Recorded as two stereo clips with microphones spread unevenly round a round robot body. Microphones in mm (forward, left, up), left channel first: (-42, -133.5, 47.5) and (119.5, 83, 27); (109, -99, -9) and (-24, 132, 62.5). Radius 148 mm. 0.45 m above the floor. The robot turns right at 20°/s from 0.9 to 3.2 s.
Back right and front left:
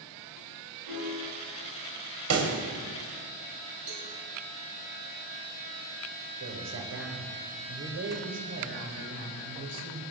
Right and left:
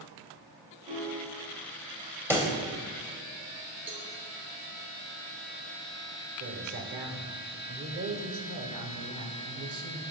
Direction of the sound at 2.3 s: 30° left.